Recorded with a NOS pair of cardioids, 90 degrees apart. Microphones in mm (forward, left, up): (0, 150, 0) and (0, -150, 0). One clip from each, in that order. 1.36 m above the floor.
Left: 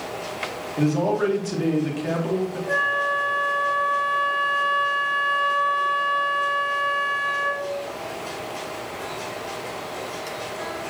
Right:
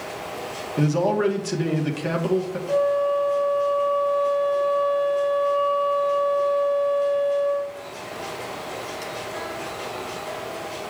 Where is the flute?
65° left, 1.6 m.